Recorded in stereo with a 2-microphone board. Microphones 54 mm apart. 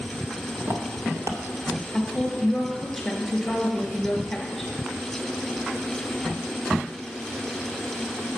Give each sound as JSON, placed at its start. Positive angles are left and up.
{"t": 0.6, "sound": "footsteps", "side_deg": -60, "distance_m": 2.5}
{"t": 1.9, "sound": "a woman speaking", "side_deg": 0, "distance_m": 2.0}